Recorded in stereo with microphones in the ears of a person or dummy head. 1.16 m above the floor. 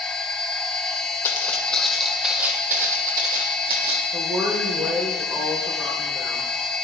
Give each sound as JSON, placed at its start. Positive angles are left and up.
{"t": 0.0, "sound": "a machine running", "side_deg": 5, "distance_m": 1.0}
{"t": 1.2, "sound": "footsteps", "side_deg": 15, "distance_m": 1.7}
{"t": 4.1, "sound": "a woman speaking", "side_deg": -15, "distance_m": 4.0}